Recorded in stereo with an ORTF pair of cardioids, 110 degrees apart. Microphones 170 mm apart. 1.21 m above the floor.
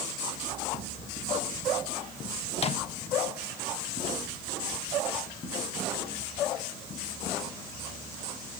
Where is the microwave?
35° left, 1.3 m.